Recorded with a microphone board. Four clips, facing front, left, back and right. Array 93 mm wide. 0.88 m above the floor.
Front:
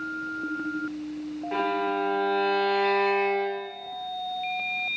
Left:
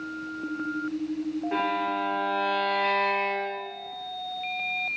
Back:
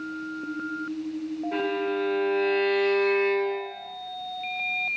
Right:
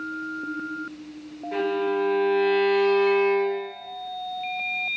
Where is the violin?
40° left, 1.2 m.